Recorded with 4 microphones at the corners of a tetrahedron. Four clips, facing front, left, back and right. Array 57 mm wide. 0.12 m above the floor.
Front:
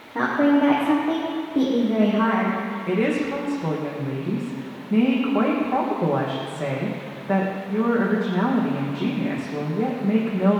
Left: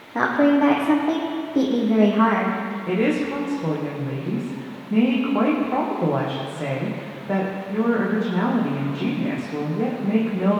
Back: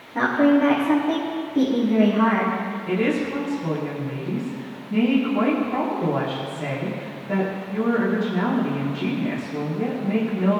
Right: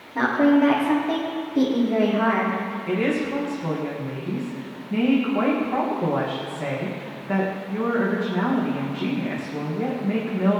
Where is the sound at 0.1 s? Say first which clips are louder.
Even, back 1 dB; 70° left, 4.5 m.